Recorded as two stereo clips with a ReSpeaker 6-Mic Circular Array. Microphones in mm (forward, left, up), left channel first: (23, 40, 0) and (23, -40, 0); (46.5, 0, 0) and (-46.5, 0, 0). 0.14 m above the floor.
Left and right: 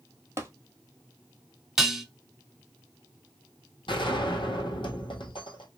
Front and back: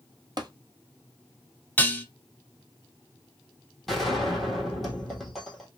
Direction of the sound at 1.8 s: 15° right.